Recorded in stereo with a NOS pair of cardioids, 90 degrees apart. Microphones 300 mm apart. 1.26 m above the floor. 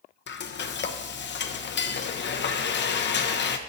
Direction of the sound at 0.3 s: 40° left.